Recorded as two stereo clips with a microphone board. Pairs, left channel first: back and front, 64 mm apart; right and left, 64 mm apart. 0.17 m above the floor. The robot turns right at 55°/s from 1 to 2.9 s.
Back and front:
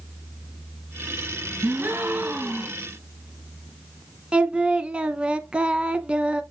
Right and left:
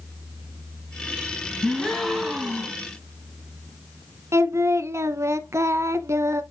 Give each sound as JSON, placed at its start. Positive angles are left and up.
{"t": 1.6, "sound": "a gasp", "azimuth_deg": -30, "distance_m": 1.3}
{"t": 4.3, "sound": "singing", "azimuth_deg": 70, "distance_m": 0.6}